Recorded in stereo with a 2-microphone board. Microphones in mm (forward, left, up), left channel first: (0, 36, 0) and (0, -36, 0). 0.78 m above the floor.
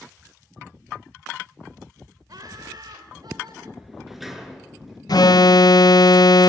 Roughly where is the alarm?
Left.